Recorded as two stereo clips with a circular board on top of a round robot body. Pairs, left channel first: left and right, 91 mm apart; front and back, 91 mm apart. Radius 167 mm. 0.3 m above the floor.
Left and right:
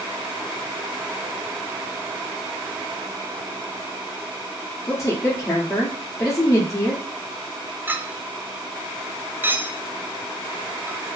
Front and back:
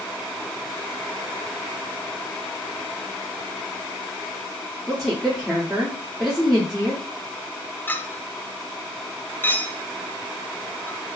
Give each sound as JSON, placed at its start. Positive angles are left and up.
{"t": 4.9, "sound": "a woman speaking", "azimuth_deg": 90, "distance_m": 1.7}
{"t": 7.9, "sound": "a clink", "azimuth_deg": -45, "distance_m": 0.6}